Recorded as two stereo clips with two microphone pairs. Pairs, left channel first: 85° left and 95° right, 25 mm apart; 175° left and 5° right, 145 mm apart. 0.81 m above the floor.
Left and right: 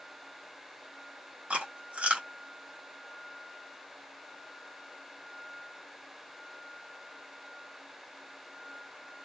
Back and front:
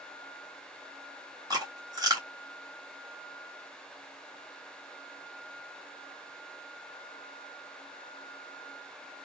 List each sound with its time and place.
1.5 s chewing: 70° right, 1.5 m